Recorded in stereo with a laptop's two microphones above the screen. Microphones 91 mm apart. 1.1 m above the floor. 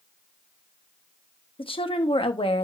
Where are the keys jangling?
I don't hear keys jangling.